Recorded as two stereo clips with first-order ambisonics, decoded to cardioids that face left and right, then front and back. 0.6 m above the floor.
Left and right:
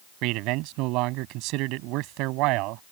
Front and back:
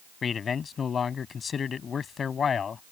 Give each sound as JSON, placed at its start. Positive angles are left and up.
{"t": 0.2, "sound": "a man speaking", "azimuth_deg": -65}